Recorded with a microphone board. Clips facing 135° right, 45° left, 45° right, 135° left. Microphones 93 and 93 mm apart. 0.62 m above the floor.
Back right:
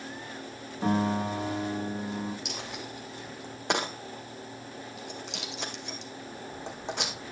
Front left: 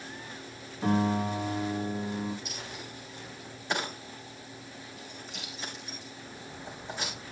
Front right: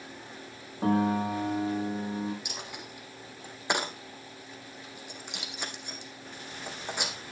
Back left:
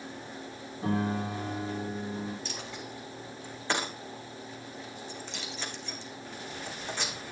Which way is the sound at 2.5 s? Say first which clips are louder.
Back right 3 dB, back left 2 dB; 120° right.